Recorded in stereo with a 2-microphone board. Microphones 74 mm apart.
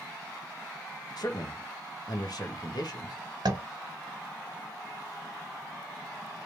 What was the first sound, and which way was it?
A man speaking, 65° left (ahead or behind).